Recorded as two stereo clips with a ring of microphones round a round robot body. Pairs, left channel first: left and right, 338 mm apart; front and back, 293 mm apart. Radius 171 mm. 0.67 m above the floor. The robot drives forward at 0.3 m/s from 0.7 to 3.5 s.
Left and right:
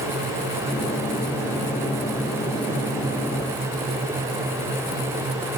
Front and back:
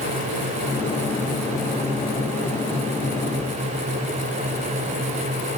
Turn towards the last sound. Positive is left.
No sound to turn to.